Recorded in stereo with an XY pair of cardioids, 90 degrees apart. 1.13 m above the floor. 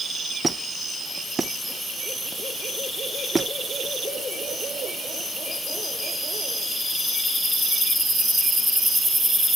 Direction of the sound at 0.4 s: 25° right.